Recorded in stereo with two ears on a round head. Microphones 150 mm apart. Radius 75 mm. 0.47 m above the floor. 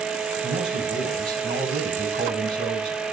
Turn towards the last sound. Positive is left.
turn(degrees=-25)  # may be behind; listen again after turning